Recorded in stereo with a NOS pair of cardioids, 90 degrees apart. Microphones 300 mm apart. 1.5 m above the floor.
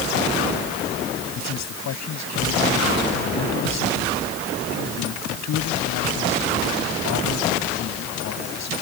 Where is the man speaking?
65° left.